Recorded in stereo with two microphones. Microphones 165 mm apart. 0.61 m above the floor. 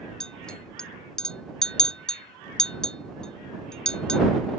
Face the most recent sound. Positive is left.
turn(degrees=5)  # may be behind; listen again after turning